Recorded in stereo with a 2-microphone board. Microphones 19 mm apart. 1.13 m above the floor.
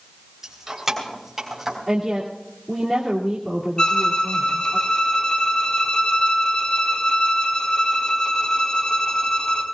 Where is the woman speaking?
15° right (ahead or behind), 2.5 m.